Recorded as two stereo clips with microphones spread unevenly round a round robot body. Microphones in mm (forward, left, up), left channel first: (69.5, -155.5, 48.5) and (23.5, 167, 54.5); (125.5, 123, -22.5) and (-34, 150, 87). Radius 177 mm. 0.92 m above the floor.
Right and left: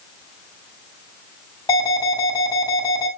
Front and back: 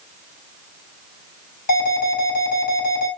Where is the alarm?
5° right, 7 m.